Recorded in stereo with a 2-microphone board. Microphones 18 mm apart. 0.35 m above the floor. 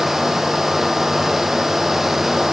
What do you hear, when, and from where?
Only background noise.